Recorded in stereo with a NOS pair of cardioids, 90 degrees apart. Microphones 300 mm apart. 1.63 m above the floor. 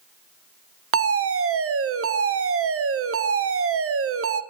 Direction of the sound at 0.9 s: 50° right.